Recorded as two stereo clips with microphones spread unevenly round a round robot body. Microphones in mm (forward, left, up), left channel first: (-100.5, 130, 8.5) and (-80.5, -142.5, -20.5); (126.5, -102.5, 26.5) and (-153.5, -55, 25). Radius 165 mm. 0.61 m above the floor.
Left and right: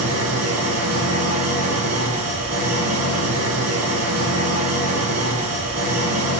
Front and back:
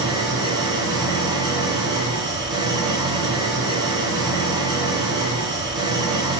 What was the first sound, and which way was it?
An engine running, 115° right.